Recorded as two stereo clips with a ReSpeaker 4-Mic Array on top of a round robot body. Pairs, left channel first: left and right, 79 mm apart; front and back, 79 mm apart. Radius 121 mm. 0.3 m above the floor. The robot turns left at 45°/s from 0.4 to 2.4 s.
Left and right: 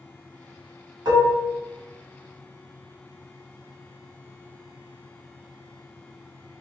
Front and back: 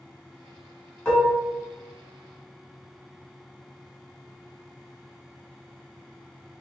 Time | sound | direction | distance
1.1 | dishes clattering | 75° right | 1.8 m